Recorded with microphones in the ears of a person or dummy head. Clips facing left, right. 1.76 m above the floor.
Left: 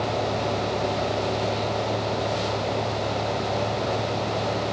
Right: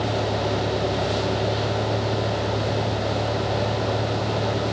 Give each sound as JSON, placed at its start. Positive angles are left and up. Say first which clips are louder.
{"t": 0.0, "sound": "a vehicle", "louder": "right 1 dB", "side_deg": -15}